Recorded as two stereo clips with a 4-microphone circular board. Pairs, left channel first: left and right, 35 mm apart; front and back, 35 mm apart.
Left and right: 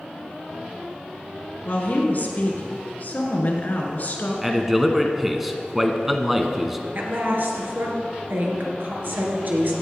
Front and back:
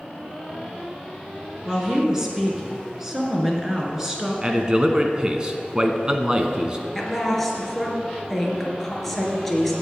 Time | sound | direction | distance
1.6 | a woman speaking | 110° left | 2.0 m
4.4 | a man speaking | 160° right | 1.1 m
7.0 | a woman speaking | 85° right | 2.5 m